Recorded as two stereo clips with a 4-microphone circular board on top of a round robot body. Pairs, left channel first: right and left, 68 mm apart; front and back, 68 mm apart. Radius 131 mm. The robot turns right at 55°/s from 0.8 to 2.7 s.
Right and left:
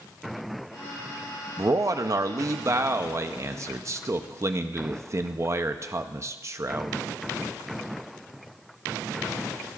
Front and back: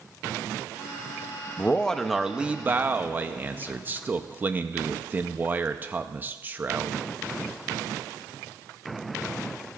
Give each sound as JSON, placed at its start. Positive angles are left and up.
{"t": 1.6, "sound": "a man speaking", "azimuth_deg": 60, "distance_m": 0.7}